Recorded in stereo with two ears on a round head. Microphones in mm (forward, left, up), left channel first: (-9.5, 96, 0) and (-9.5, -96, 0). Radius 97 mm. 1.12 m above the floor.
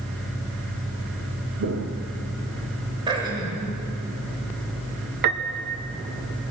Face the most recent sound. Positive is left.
turn(degrees=-50)  # may be behind; listen again after turning